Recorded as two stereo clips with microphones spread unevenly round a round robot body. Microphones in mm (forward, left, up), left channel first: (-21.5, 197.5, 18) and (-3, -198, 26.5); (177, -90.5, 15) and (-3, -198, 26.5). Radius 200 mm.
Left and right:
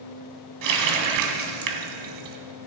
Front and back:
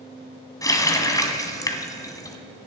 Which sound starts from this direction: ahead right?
A running tap, at 0.6 s.